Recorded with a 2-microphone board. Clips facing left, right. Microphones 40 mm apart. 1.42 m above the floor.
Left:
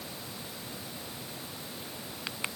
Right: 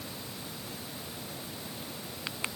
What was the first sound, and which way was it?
Only background noise.